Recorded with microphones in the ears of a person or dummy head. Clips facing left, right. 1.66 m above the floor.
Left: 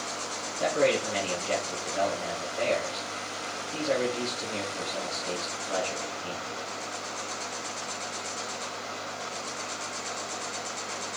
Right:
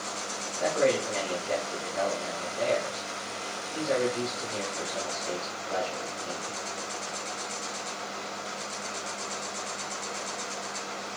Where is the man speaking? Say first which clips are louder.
Even; 40° left (ahead or behind), 4 m.